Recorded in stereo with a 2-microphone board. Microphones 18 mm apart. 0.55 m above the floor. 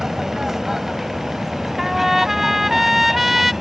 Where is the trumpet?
10° right (ahead or behind).